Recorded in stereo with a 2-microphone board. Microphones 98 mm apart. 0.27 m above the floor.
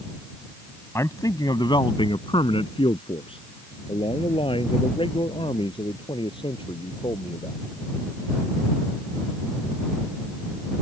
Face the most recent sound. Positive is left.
turn(degrees=55)  # may be behind; listen again after turning